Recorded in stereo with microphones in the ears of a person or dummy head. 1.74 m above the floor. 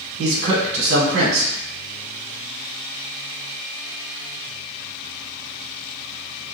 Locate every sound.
0.2 s a man speaking: 60° right (ahead or behind), 1.0 m